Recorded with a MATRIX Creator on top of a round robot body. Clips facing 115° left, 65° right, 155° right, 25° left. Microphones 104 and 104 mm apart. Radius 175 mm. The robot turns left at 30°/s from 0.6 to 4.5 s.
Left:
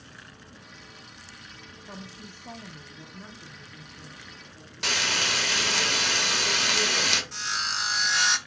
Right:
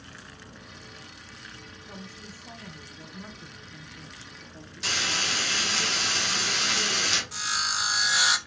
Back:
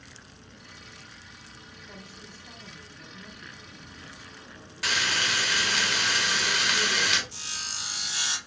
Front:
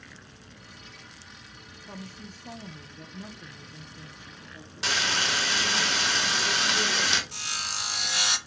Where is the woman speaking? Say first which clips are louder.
Left 2 dB, front 6 dB; 65° left, 1.1 m; by 5.8 s 15° right, 1.1 m.